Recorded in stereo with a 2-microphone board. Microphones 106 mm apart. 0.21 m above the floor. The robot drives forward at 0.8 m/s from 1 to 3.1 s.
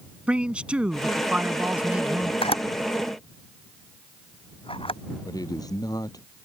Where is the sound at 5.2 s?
35° left (ahead or behind).